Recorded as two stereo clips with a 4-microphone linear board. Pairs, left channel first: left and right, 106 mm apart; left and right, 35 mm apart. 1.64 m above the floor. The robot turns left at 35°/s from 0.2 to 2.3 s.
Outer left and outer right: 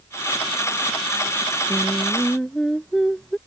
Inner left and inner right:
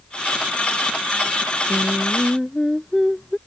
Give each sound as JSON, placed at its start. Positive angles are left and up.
{"t": 1.7, "sound": "singing", "side_deg": -15}